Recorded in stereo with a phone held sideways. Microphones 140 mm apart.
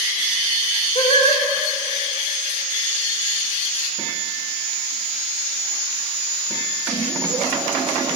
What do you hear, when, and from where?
0.9 s singing: 45° left (ahead or behind), 1.6 m